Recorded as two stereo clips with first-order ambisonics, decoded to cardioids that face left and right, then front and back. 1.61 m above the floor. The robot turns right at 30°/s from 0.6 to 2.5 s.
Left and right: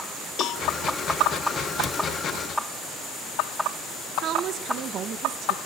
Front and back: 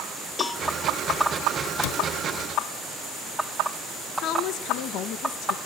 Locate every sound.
0.4 s a cowbell: 75° left, 1.2 m
1.8 s a cupboard door: 10° left, 1.1 m; by 2.0 s 20° left, 1.1 m
4.2 s a woman speaking: 35° right, 1.6 m